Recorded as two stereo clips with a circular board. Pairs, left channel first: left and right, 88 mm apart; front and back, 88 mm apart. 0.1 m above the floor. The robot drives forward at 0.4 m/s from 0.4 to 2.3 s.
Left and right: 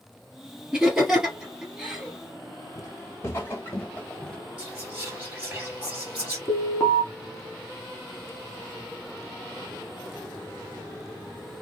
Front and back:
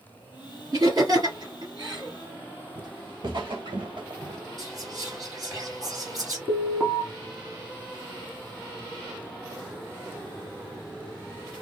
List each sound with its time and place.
0.7 s laughter: 170° right, 2 m
2.8 s footsteps: 145° left, 1.7 m; by 4.4 s 175° left, 0.8 m
4.6 s whispering: 160° right, 2.5 m
6.5 s an alarm: 140° left, 1.1 m